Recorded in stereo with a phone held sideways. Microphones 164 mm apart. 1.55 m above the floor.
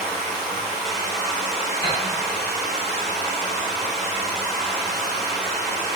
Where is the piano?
20° left (ahead or behind), 1.6 m.